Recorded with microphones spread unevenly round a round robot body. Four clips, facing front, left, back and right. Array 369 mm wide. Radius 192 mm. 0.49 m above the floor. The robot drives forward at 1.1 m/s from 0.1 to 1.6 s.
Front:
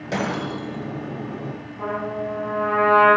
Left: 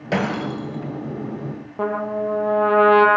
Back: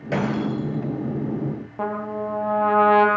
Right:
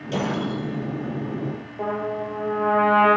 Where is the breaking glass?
75° left, 6 m; by 0.9 s 85° left, 6 m.